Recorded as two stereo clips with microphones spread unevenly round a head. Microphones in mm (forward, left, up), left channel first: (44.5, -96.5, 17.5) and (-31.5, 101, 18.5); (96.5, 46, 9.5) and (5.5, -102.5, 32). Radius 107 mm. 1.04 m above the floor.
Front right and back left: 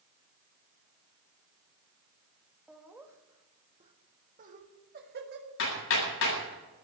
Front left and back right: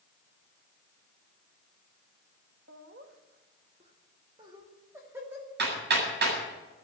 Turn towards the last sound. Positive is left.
turn(degrees=-100)